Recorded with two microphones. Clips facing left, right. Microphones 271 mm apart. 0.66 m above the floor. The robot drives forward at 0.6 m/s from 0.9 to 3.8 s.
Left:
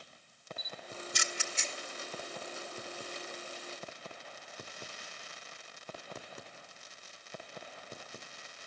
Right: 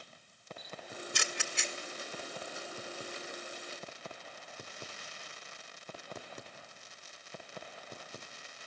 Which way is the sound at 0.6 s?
65° right (ahead or behind).